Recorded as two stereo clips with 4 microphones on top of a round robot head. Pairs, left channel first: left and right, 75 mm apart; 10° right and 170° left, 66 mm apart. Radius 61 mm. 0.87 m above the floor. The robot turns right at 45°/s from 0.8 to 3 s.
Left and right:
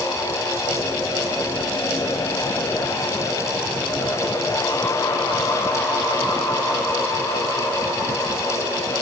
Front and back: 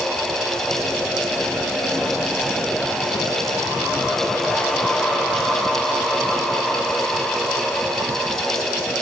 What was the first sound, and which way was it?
Only background noise.